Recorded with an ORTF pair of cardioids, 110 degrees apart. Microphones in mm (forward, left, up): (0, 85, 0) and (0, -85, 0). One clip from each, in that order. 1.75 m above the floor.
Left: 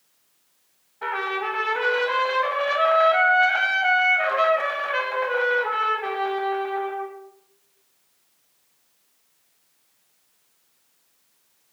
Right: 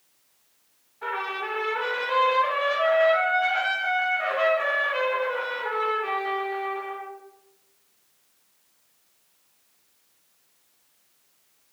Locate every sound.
1.0 s a trumpet: 40° left, 1.4 m